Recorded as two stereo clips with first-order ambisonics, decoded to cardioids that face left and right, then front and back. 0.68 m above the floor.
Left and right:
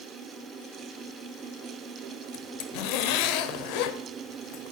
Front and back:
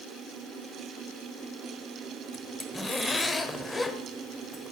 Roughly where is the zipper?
Left.